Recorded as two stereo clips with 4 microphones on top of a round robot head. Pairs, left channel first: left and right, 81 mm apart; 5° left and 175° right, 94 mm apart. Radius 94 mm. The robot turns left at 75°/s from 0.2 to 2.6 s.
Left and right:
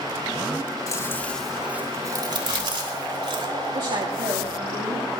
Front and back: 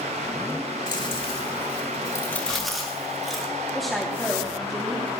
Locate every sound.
0.9 s chewing: 45° left, 4 m; by 3.5 s 85° right, 4 m
3.7 s a woman speaking: 80° right, 3 m